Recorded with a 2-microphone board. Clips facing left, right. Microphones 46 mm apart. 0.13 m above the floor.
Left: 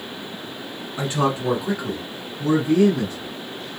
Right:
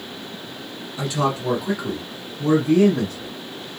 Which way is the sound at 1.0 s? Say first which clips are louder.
Left 1 dB; 35° left (ahead or behind).